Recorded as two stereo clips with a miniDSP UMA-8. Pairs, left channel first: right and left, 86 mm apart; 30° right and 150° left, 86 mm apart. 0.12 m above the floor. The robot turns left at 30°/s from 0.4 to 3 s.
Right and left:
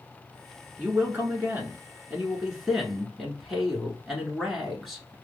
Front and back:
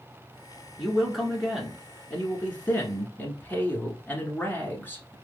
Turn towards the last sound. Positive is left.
turn(degrees=0)